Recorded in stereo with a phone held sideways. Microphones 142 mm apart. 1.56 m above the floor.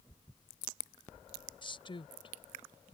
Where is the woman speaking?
35° left (ahead or behind).